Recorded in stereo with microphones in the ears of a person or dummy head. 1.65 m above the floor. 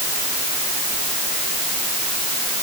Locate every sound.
Only background noise.